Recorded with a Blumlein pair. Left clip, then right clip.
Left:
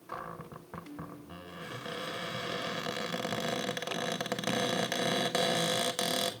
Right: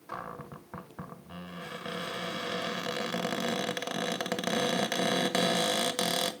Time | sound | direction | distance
0.1 | a cupboard door | 10° right | 1.2 m